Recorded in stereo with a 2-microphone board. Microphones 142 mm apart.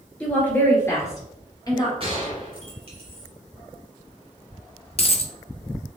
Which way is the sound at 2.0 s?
40° right (ahead or behind).